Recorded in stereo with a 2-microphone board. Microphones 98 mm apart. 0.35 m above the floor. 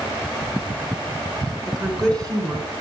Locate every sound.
1.7 s a woman speaking: 45° right (ahead or behind), 3.5 m; by 2.7 s 35° right (ahead or behind), 2.5 m